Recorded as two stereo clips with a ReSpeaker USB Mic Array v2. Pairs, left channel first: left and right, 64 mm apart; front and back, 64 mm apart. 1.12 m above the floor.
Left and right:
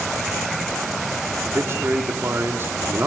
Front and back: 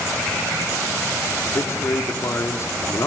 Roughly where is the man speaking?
Ahead right.